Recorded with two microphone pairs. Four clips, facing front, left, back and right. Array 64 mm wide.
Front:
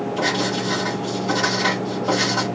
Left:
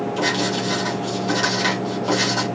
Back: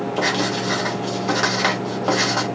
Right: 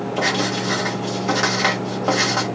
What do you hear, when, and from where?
0.2 s writing: 135° right, 1.5 m